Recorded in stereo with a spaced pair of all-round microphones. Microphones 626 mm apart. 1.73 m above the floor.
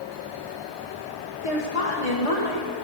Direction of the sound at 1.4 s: 60° left (ahead or behind).